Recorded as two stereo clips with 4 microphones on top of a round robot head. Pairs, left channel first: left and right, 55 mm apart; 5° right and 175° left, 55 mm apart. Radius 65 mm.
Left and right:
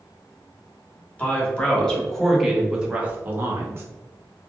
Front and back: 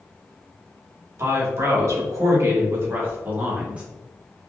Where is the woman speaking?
155° left, 1.9 m; by 3.8 s 120° right, 1.4 m.